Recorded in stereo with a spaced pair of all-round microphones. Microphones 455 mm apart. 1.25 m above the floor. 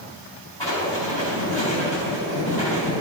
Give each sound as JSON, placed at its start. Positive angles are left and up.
{"t": 0.6, "sound": "writing", "side_deg": 70, "distance_m": 4.0}